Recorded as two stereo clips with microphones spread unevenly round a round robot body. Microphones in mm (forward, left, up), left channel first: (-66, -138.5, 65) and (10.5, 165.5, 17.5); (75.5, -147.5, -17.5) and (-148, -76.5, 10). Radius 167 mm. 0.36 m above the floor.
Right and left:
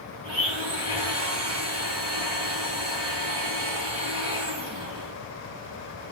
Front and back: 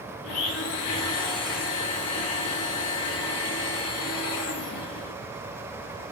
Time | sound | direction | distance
0.2 | a blender | 5° left | 4.5 m